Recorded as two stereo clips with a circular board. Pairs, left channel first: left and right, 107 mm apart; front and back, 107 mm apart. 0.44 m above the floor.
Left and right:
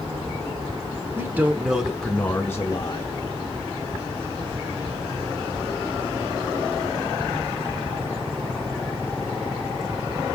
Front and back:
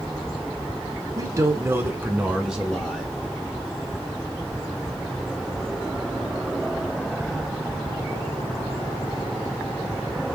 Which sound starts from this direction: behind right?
A man speaking, at 1.1 s.